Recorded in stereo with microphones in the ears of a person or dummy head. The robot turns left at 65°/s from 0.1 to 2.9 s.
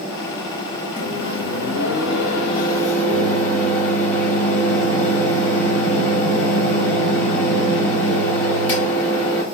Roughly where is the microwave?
Behind left.